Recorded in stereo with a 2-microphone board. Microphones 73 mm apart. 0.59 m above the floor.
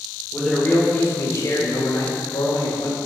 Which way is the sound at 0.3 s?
10° left (ahead or behind).